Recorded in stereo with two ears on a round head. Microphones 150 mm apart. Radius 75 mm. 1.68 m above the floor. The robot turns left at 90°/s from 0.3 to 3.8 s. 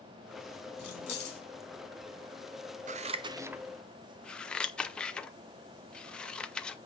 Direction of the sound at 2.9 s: 45° right (ahead or behind).